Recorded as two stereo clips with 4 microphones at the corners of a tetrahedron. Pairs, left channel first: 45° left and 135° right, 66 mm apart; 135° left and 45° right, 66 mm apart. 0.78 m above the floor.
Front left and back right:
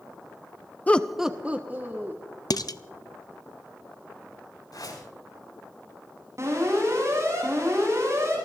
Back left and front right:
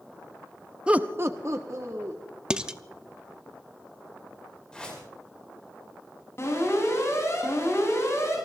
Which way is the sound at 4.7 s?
60° left.